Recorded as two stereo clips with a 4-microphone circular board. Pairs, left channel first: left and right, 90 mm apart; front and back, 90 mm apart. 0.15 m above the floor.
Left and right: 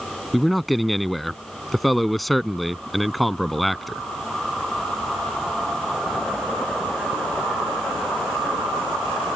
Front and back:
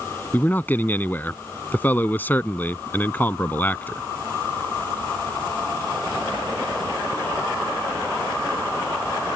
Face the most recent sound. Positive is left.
turn(degrees=0)